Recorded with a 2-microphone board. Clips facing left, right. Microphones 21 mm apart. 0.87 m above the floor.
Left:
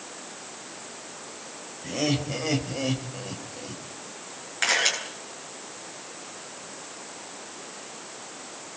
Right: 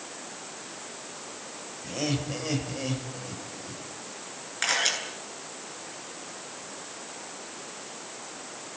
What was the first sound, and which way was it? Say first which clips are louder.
Laughter: left 4 dB; 5° left (ahead or behind).